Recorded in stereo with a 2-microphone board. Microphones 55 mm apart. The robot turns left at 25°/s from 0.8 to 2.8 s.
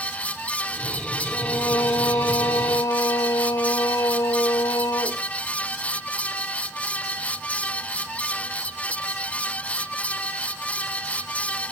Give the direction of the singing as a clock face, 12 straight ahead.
8 o'clock.